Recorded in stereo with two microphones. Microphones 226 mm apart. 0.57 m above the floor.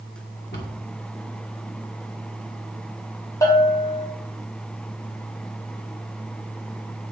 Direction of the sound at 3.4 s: 15° left (ahead or behind).